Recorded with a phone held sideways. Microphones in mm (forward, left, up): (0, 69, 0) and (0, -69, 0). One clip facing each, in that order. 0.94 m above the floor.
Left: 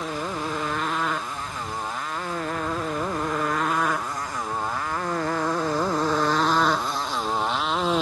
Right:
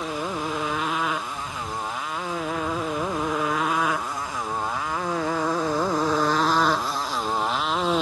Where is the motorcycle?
5° right (ahead or behind); by 8.0 s centre (ahead or behind).